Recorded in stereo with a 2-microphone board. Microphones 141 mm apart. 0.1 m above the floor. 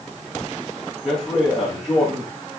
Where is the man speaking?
5° left (ahead or behind), 5.5 m.